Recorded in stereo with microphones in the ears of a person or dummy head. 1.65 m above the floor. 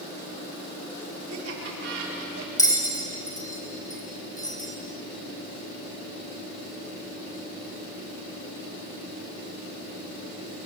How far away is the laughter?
About 5.5 m.